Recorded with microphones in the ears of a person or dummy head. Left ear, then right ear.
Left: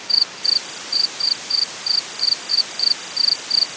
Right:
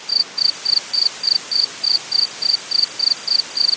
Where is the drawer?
No drawer in this recording.